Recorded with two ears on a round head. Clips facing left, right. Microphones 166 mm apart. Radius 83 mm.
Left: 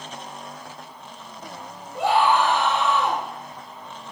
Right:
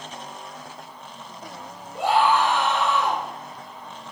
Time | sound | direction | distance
1.9 | a scream | 60° left (ahead or behind) | 8 m